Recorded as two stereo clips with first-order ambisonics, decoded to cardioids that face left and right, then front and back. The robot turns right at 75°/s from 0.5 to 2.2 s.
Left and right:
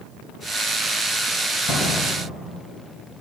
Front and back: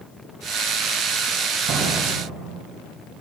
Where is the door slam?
140° left, 3 m; by 2.7 s 175° left, 3 m.